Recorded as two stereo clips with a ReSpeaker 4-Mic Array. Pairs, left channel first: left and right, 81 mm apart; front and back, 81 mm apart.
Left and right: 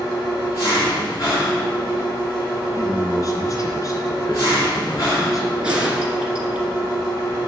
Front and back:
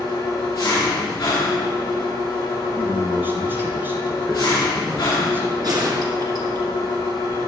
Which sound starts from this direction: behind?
A gunshot, at 5.6 s.